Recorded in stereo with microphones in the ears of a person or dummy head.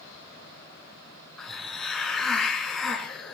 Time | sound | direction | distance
1.4 | a hiss | centre (ahead or behind) | 5.5 m